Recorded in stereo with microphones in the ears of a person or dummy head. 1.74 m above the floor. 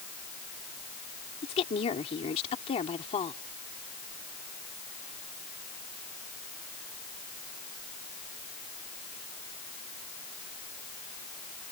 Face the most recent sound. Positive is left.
turn(degrees=35)  # may be behind; listen again after turning